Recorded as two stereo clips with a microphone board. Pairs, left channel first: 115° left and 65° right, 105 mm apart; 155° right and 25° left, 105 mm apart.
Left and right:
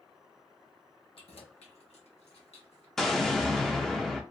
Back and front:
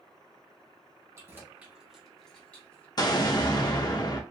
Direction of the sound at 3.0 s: 165° right.